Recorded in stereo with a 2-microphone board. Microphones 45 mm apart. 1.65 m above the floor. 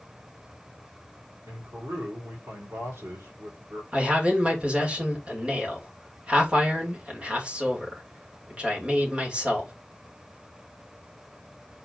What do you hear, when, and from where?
1.5 s a man speaking: 80° right, 3.5 m
3.9 s a man speaking: 25° right (ahead or behind), 2.5 m